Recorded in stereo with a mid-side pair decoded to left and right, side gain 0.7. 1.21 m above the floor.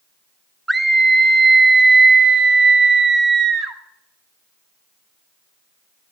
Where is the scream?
5° right, 0.9 m; by 3.8 s 45° right, 2.5 m.